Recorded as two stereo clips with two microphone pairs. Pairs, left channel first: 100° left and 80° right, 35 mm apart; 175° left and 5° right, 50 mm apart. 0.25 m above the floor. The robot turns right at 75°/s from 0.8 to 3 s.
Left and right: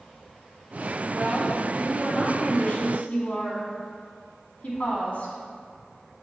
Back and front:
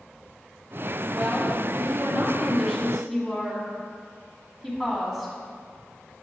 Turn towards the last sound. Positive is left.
turn(degrees=80)